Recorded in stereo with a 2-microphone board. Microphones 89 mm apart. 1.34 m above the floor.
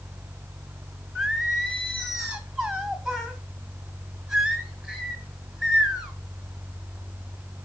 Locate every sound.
1.1 s singing: 10° right (ahead or behind), 1.2 m